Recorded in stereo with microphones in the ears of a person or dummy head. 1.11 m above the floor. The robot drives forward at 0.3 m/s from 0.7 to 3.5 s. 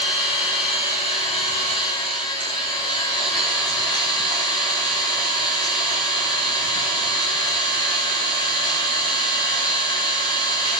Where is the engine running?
35° left (ahead or behind), 3.5 m; by 10.8 s 25° left (ahead or behind), 4.5 m.